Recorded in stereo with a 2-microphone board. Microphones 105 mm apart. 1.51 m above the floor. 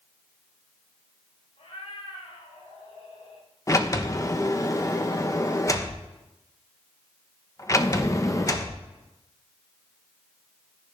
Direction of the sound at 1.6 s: 85° left.